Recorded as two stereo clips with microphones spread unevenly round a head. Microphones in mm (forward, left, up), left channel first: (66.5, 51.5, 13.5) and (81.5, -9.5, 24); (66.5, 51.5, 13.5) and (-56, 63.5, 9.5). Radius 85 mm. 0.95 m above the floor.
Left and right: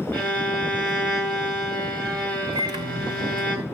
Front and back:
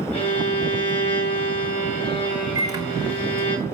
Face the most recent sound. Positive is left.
turn(degrees=-115)